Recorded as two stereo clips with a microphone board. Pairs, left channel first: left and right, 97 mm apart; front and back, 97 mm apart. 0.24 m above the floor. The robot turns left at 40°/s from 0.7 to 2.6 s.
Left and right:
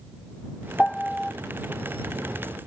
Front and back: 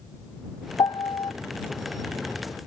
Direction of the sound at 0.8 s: 15° left.